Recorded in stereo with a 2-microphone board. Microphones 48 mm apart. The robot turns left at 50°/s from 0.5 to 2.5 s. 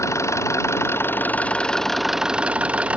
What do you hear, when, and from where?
0.0 s an engine running: 75° left; by 3.0 s 25° right